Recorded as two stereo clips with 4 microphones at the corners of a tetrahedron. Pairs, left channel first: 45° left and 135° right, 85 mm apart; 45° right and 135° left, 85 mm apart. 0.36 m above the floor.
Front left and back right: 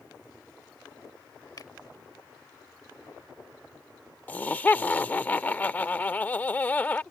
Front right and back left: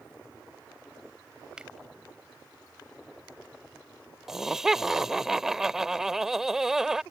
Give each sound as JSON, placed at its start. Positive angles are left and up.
{"t": 1.6, "sound": "a finger snap", "azimuth_deg": 60}
{"t": 4.3, "sound": "laughter", "azimuth_deg": 65}